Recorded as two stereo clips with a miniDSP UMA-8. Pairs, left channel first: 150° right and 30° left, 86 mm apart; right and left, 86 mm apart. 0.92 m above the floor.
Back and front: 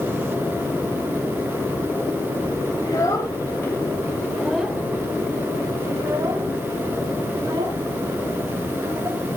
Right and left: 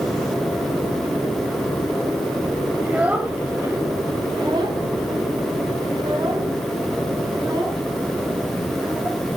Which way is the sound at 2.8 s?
165° left.